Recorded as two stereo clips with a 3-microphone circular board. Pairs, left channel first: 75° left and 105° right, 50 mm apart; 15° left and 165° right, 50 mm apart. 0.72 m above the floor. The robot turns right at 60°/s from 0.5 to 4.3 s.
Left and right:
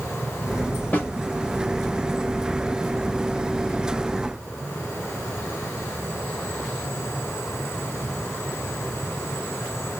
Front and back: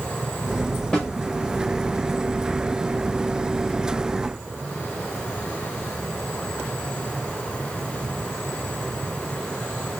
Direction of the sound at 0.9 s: 80° left.